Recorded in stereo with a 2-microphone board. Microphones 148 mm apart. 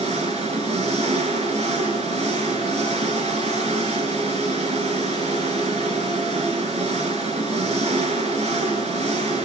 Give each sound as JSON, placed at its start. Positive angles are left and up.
{"t": 0.0, "sound": "an engine running", "side_deg": -50, "distance_m": 4.5}